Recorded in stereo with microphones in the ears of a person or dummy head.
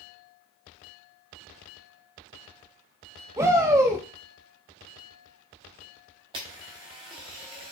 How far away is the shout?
About 0.8 m.